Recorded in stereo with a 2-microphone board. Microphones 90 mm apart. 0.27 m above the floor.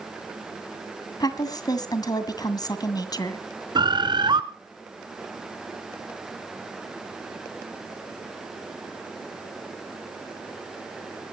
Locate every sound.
1.2 s a woman speaking: 45° left (ahead or behind), 2 m
3.8 s a bird: 55° right (ahead or behind), 1.4 m